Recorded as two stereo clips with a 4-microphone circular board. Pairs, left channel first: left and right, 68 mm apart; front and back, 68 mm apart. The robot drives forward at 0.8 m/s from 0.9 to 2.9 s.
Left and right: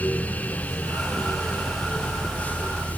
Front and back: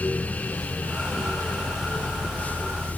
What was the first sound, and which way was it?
Only background noise.